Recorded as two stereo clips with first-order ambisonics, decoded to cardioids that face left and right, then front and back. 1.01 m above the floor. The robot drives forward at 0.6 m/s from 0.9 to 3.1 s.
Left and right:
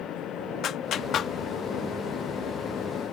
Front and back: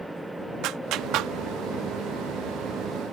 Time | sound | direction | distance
0.6 | a clap | 145° left | ?